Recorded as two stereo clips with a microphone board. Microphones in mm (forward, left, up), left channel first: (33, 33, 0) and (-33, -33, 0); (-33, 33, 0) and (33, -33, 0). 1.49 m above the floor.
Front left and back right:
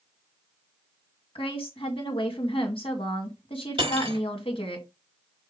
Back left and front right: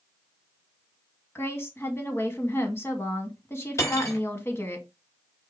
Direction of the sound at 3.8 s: 165° right.